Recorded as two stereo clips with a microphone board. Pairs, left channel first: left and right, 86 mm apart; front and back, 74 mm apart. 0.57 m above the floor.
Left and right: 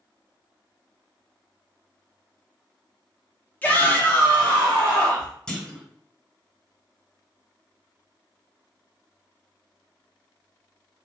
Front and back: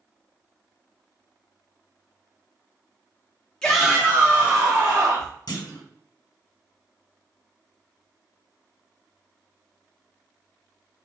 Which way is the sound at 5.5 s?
10° left.